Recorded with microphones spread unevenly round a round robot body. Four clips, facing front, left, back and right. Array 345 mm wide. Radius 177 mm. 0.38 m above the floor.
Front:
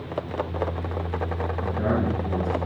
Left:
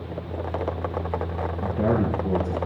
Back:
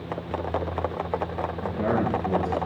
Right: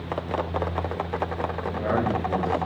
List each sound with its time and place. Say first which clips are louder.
1.6 s a man speaking: left 3 dB, even; 75° left, 5.5 m